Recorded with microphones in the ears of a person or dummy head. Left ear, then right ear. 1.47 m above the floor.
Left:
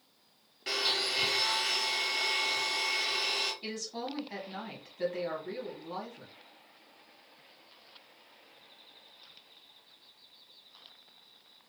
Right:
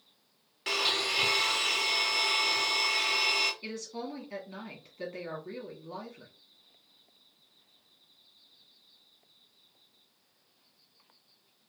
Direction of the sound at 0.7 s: 35° right (ahead or behind).